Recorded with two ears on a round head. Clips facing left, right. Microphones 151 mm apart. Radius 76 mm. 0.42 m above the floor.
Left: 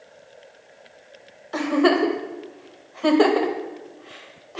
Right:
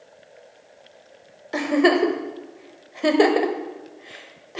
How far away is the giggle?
About 0.8 m.